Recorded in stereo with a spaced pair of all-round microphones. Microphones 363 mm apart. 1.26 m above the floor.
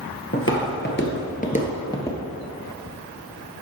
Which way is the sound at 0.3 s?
35° left (ahead or behind).